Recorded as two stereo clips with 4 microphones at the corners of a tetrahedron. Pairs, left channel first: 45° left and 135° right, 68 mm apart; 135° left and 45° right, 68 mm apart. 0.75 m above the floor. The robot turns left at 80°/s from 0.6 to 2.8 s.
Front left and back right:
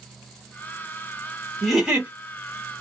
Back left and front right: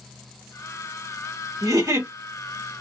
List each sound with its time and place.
1.6 s a giggle: 40° right, 1.6 m; by 2.1 s 80° right, 1.6 m